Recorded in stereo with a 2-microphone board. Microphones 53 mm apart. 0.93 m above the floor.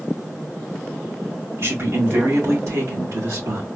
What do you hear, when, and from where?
1.6 s a man speaking: 55° right (ahead or behind), 2.5 m; by 3.7 s 70° right (ahead or behind), 1.7 m